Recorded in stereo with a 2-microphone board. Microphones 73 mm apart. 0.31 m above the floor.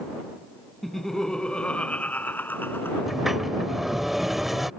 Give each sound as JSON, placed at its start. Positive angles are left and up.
{"t": 0.8, "sound": "laughter", "side_deg": 0}
{"t": 3.1, "sound": "a sliding door", "side_deg": -5}